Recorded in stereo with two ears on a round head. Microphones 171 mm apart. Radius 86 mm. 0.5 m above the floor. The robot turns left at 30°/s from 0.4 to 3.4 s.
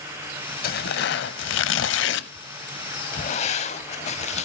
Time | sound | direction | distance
0.6 | tearing paper | 50° left (ahead or behind) | 0.5 m